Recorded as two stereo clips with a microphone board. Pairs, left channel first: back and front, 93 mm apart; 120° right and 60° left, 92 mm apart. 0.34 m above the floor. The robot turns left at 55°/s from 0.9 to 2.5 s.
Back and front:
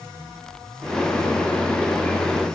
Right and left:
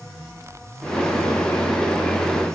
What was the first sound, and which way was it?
Only background noise.